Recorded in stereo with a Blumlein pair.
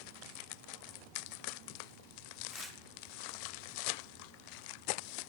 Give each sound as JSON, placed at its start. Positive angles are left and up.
{"t": 2.5, "sound": "tearing paper", "azimuth_deg": -10, "distance_m": 1.2}